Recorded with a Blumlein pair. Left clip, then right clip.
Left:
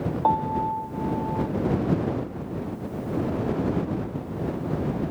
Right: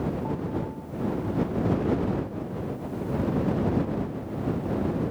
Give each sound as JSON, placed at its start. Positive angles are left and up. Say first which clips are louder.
{"t": 0.2, "sound": "a piano", "louder": "left 9 dB", "azimuth_deg": 50}